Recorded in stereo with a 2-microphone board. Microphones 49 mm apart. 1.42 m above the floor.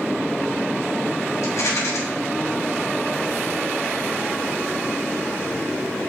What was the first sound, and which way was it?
A rattle, 70° left (ahead or behind).